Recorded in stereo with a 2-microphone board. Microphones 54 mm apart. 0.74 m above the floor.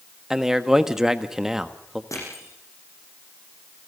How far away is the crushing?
About 8.5 m.